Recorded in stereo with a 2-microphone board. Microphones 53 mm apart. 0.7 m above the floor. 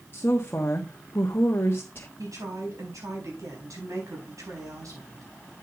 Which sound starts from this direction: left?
A woman speaking, at 0.1 s.